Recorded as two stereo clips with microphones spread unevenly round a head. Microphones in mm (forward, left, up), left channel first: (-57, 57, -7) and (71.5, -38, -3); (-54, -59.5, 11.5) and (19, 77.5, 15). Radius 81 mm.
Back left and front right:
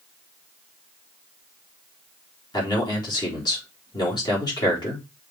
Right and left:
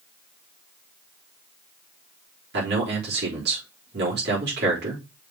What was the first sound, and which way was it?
A man speaking, 80° left.